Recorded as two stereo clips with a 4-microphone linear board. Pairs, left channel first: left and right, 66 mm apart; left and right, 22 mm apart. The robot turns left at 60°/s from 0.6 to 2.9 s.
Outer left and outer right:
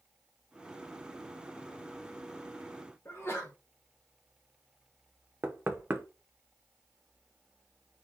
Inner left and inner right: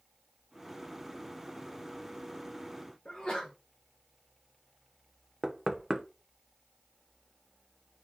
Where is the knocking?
30° right (ahead or behind), 0.7 m.